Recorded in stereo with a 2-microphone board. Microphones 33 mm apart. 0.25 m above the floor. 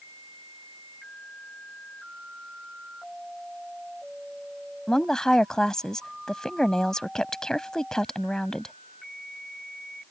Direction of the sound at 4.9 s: 20° left (ahead or behind).